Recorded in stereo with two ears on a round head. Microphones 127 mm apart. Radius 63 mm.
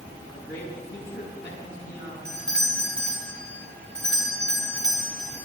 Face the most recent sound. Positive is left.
turn(degrees=5)  # may be behind; listen again after turning